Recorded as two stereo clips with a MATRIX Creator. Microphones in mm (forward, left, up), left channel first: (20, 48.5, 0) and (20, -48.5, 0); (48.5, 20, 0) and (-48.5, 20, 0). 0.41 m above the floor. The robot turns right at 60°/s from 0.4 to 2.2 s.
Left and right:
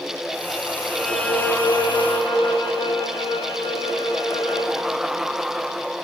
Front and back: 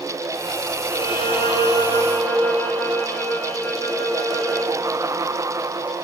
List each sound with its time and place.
0.9 s a violin: 10° right, 1.6 m; by 4.8 s 70° left, 1.6 m